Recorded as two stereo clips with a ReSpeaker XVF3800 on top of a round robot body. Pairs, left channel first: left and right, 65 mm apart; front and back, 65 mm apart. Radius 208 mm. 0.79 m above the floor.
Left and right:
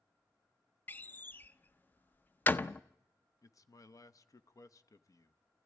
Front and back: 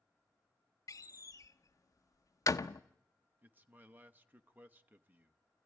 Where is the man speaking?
120° left, 1.0 m.